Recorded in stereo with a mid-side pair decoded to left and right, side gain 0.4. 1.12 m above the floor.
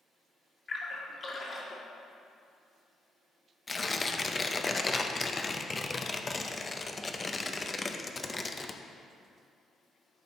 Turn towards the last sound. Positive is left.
turn(degrees=30)